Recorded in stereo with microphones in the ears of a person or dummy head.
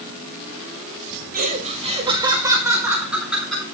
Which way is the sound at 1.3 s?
45° right (ahead or behind).